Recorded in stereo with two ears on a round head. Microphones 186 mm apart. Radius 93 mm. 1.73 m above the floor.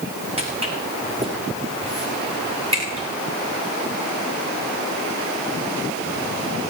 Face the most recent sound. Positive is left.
turn(degrees=-25)  # may be behind; listen again after turning